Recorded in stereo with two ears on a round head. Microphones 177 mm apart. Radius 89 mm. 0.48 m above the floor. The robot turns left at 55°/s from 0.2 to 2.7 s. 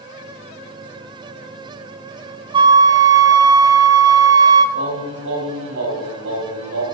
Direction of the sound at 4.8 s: 65° right (ahead or behind).